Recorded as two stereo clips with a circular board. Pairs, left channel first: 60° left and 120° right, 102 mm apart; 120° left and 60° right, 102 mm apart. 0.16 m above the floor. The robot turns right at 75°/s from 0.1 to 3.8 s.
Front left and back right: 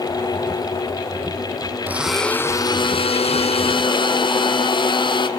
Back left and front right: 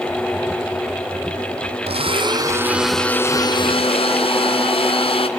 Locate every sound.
1.9 s a blender: 50° right, 0.8 m; by 5.3 s 95° left, 0.8 m